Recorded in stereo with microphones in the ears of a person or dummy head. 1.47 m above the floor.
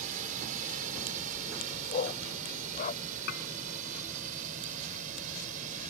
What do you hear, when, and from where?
0.0 s a drone: 45° right (ahead or behind)
1.9 s a dog barking: 35° left (ahead or behind)
3.3 s dishes clattering: 55° left (ahead or behind)